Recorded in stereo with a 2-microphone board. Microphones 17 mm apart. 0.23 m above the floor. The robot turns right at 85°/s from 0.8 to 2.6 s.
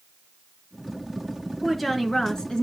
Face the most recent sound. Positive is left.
turn(degrees=75)